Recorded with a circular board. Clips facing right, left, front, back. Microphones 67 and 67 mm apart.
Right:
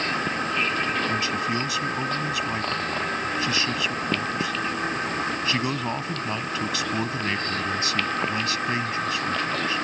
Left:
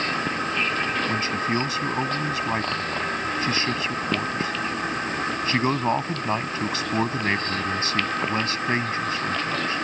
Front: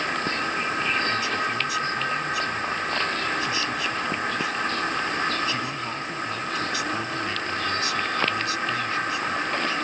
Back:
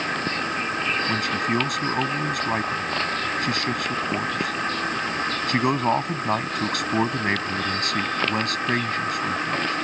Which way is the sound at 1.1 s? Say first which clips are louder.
Left 1 dB, back 2 dB; 145° left.